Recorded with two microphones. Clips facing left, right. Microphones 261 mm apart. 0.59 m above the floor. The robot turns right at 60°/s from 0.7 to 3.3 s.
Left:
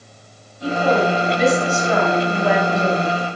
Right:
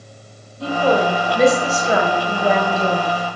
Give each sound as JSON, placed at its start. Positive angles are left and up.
{"t": 0.6, "sound": "a woman speaking", "azimuth_deg": -105, "distance_m": 3.0}